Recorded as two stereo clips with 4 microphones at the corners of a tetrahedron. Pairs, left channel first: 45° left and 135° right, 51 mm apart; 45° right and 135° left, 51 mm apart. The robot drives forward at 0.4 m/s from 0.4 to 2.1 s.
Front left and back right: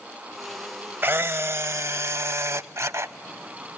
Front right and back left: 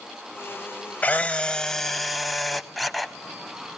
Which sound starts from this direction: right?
A camera shutter, at 1.0 s.